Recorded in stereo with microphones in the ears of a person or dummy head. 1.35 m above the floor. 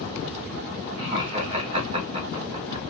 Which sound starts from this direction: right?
Laughter, at 1.0 s.